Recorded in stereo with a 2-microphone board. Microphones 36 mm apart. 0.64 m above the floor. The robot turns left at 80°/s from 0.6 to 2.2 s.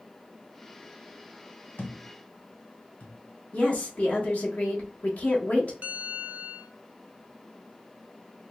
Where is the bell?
50° right (ahead or behind), 0.6 m.